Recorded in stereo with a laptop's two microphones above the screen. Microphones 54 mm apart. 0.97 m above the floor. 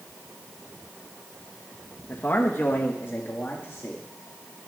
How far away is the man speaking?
About 1.1 m.